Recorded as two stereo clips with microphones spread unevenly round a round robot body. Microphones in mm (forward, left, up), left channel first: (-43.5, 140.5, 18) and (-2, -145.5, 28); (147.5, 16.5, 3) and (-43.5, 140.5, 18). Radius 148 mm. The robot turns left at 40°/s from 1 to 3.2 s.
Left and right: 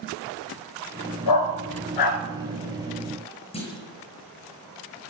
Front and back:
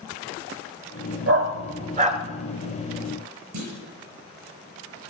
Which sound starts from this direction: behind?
A clunk, at 3.5 s.